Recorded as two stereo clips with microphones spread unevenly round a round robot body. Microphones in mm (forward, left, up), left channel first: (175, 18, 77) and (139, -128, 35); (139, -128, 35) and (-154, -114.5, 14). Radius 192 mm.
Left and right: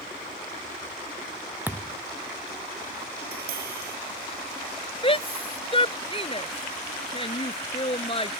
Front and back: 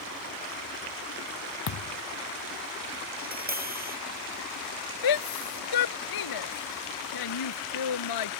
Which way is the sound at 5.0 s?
25° left.